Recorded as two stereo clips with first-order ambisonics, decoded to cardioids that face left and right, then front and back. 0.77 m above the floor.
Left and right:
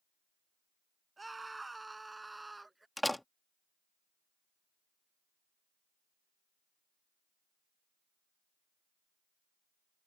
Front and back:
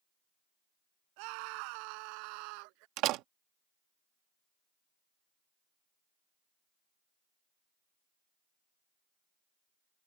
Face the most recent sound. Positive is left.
turn(degrees=175)